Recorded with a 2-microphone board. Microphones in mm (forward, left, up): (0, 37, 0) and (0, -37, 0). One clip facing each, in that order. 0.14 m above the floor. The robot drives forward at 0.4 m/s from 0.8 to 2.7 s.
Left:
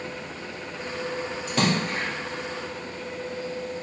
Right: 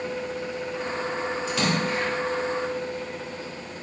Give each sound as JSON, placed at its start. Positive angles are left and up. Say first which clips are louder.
{"t": 1.5, "sound": "a splash", "louder": "left 2 dB", "side_deg": 45, "distance_m": 2.5}